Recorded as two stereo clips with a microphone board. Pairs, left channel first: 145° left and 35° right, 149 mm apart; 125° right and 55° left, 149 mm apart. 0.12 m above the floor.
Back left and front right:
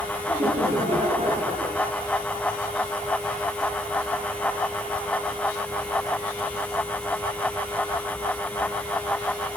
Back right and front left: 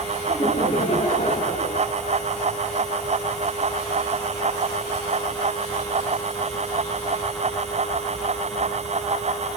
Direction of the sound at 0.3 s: 75° right.